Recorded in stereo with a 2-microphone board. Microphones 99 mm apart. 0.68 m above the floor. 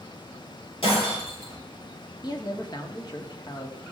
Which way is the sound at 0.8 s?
60° left (ahead or behind).